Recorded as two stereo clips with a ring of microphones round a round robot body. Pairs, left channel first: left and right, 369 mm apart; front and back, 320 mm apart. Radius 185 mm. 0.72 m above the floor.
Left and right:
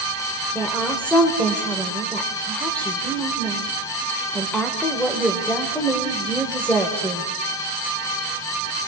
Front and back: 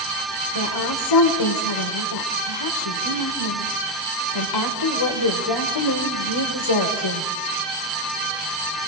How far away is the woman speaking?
About 3 m.